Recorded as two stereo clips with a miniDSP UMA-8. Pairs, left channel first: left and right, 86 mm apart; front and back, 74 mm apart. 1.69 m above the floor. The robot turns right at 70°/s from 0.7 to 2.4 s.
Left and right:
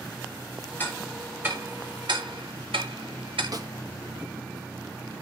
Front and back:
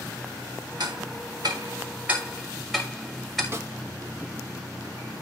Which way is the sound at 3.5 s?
125° right.